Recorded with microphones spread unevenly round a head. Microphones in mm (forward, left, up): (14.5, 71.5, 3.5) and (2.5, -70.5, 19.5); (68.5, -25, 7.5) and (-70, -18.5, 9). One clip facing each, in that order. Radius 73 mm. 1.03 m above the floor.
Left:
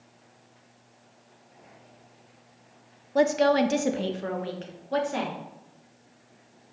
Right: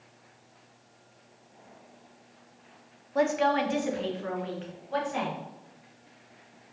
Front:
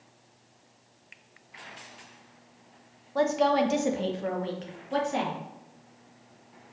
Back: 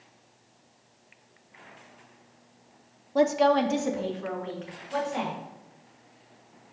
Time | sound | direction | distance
3.1 | a woman speaking | 115° left | 0.9 m